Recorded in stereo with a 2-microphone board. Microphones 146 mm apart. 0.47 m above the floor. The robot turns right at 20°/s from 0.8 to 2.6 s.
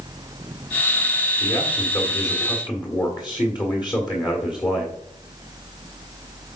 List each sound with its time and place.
1.4 s a man speaking: 40° left (ahead or behind), 1.3 m; by 5.0 s 30° left (ahead or behind), 1.3 m